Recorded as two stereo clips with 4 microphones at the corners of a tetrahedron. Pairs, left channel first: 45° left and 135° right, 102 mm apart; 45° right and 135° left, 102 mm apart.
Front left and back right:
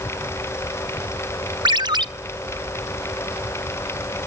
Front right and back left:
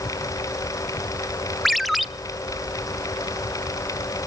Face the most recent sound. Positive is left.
turn(degrees=-135)